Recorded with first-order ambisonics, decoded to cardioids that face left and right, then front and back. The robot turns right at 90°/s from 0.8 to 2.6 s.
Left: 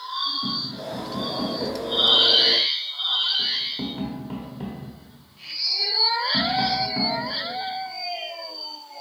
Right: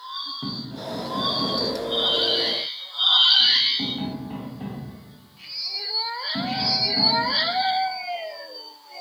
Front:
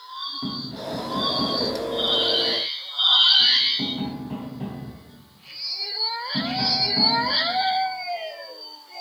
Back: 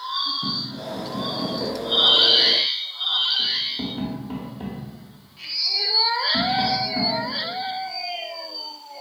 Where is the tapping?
50° right, 1.2 m; by 7.2 s 115° left, 1.2 m.